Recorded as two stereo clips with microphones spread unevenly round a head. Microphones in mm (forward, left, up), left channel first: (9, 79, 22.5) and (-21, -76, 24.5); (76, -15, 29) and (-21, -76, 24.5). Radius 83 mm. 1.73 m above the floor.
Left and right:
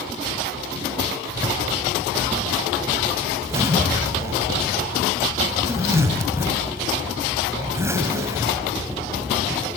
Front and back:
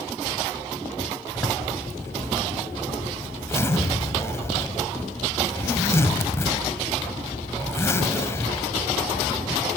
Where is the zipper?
30° right, 2.5 m.